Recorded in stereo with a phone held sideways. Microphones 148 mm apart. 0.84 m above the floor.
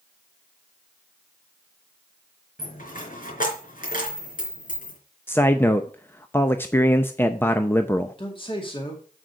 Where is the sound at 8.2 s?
35° left (ahead or behind), 2 m.